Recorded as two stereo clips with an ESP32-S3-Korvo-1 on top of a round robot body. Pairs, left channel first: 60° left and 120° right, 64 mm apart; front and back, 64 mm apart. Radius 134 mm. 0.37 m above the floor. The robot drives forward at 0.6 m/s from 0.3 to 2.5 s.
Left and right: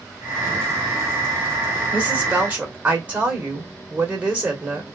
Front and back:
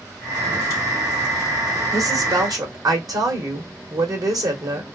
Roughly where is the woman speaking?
Behind.